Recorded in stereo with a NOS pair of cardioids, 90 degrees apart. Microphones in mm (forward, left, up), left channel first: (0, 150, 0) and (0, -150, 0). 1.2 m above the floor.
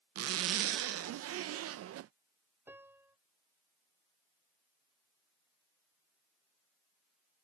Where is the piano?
10° right.